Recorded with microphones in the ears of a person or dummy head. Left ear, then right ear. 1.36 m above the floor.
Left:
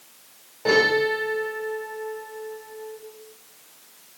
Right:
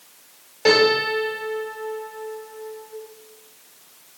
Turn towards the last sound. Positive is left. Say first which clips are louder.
# right 2 dB
turn(degrees=-70)  # may be behind; listen again after turning